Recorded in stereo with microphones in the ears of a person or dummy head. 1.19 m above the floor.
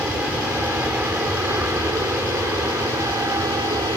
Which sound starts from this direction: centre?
An aircraft, at 0.0 s.